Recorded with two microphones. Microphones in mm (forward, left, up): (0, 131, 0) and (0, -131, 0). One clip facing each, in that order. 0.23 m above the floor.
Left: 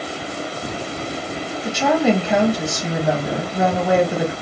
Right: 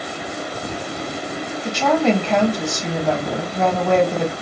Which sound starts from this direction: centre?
A woman speaking, at 1.6 s.